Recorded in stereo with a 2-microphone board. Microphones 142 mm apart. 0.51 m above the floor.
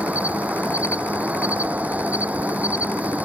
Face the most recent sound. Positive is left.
turn(degrees=-10)  # may be behind; listen again after turning